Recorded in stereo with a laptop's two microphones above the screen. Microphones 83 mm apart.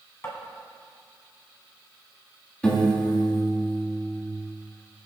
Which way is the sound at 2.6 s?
15° left (ahead or behind).